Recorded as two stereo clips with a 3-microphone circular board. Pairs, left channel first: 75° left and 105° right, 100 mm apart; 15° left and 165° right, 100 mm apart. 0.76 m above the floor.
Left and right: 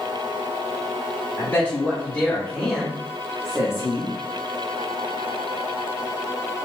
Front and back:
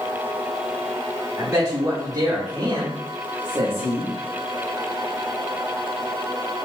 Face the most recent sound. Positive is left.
turn(degrees=-155)